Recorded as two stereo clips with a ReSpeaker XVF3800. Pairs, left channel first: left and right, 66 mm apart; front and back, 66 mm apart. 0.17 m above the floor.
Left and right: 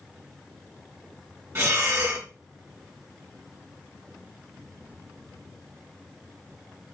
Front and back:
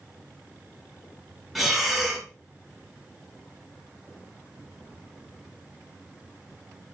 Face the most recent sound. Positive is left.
turn(degrees=-90)